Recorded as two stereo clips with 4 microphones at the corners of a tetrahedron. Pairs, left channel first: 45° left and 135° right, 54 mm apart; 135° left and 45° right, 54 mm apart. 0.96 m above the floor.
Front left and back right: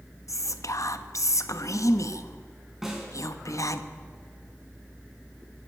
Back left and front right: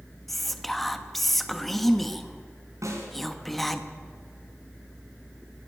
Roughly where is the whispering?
Ahead left.